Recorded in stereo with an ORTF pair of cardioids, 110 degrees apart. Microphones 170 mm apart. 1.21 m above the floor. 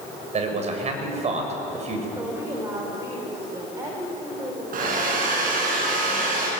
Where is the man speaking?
40° right, 6.5 m.